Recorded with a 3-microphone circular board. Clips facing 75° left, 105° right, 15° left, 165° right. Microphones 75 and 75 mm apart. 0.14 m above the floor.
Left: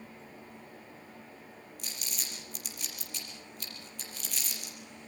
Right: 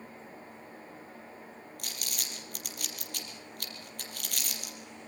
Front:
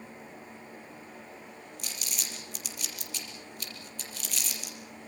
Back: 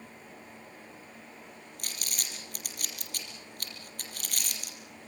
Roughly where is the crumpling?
Behind right.